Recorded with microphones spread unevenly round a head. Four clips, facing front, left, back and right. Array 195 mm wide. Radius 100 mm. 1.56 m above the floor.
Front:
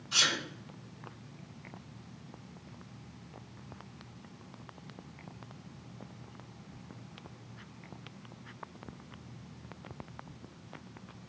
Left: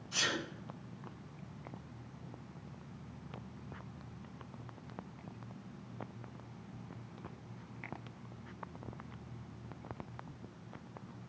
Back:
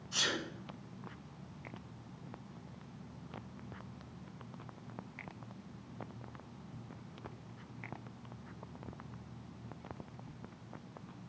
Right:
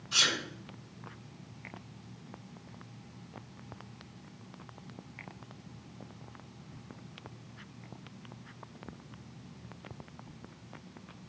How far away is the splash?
No splash in this recording.